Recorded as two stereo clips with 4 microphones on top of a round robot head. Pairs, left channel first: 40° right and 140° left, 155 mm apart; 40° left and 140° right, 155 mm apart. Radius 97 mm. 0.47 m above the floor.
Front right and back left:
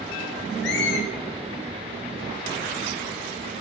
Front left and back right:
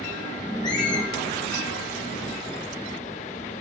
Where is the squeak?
25° right, 1.6 m.